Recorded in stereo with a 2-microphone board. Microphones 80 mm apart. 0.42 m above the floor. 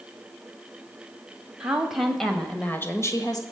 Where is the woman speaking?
10° right (ahead or behind), 2.5 m; by 3.4 s 50° left (ahead or behind), 1.6 m.